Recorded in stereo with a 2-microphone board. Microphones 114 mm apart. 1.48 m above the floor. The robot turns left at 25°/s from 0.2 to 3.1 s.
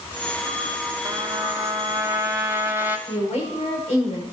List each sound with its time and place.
1.1 s a trumpet: 30° right (ahead or behind), 1.0 m; by 3.0 s 20° right (ahead or behind), 1.0 m
3.1 s a woman speaking: 75° left (ahead or behind), 6 m